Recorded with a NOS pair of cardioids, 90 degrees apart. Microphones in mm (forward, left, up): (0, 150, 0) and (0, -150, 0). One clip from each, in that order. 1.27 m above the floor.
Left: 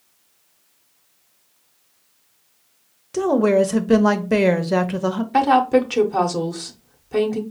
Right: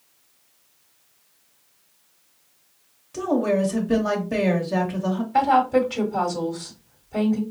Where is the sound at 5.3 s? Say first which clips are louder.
Left 2 dB; 65° left, 0.9 m.